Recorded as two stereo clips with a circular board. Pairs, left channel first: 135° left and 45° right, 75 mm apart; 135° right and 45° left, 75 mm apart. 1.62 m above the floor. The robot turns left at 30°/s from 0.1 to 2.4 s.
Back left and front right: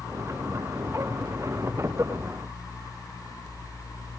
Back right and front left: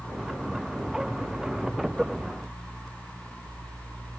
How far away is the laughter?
I don't hear laughter.